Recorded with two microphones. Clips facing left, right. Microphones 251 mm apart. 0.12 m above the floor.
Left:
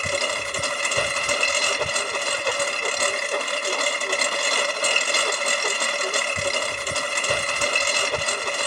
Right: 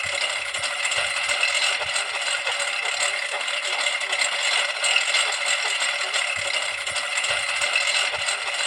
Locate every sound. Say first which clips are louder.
0.0 s a lawn mower: left 8 dB; 50° left (ahead or behind)